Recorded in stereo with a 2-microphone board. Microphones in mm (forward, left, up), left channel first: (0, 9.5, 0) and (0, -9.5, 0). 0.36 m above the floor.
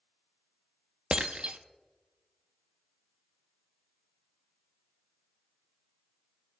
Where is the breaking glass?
60° right (ahead or behind), 0.6 m.